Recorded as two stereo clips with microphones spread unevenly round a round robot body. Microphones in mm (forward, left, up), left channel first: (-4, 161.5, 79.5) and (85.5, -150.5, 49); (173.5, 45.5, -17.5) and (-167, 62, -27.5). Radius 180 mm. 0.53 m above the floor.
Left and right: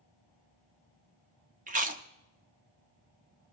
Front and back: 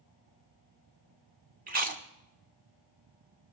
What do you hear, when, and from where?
1.7 s chewing: 125° right, 1.1 m